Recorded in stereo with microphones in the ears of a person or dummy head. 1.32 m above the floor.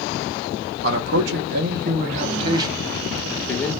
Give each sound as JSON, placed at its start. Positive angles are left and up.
{"t": 0.8, "sound": "a man speaking", "side_deg": -80, "distance_m": 1.2}